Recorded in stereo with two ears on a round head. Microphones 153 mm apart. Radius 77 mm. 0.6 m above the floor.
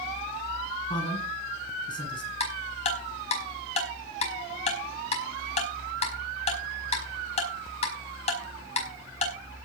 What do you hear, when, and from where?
0.9 s a man speaking: 30° left (ahead or behind), 8 m
2.4 s ticking: 40° left (ahead or behind), 5 m